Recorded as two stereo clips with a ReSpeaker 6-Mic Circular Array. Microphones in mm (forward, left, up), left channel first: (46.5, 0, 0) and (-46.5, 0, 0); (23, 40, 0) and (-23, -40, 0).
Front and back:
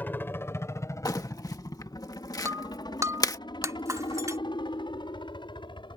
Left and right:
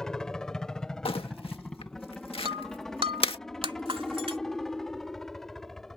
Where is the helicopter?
10° right; by 6.0 s 25° right.